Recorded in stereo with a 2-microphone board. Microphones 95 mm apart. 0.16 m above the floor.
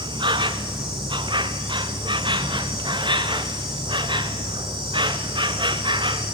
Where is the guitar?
No guitar in this recording.